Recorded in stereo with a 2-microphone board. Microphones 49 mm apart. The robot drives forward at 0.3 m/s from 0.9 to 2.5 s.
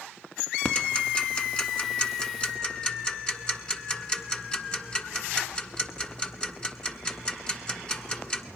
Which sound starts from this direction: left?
Ticking, at 0.7 s.